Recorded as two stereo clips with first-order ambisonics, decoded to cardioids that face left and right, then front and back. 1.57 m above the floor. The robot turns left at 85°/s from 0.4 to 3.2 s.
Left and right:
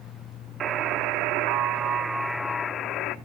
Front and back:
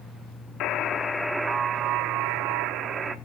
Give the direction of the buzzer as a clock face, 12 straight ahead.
1 o'clock.